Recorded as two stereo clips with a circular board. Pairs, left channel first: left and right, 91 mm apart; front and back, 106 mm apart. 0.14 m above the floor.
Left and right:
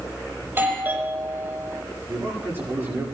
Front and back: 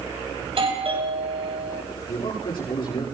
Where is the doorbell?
155° right, 7 m.